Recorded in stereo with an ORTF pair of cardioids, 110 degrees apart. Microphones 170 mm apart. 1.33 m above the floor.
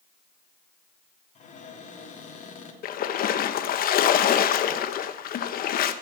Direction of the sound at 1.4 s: 45° left.